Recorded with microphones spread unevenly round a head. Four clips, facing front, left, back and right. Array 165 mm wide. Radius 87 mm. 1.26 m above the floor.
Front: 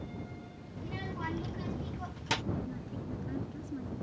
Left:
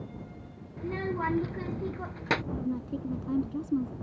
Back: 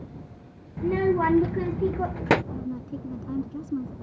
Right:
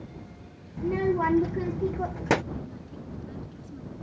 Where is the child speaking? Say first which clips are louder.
Right 7 dB, back 18 dB; 150° right.